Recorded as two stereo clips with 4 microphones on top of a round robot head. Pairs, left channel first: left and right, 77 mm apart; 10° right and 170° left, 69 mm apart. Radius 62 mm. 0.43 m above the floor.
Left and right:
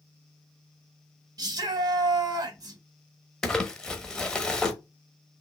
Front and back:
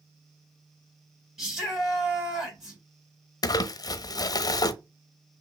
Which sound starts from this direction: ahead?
Crumpling, at 3.4 s.